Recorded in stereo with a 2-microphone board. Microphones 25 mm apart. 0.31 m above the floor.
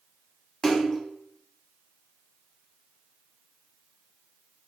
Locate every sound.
0.6 s a splash: 15° left (ahead or behind), 0.6 m